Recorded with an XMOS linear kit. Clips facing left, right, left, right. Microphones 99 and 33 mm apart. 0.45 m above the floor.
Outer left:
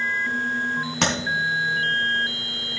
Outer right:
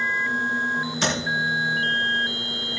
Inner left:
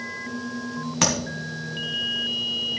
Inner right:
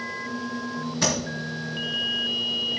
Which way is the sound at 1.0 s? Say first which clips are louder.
Outer left 2 dB, inner left 2 dB; 70° left (ahead or behind).